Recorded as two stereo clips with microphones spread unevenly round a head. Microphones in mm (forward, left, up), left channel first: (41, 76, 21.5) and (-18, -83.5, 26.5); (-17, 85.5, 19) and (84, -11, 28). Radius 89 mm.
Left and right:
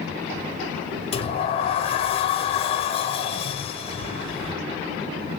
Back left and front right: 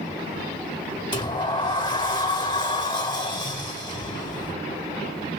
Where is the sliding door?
105° left, 0.7 m.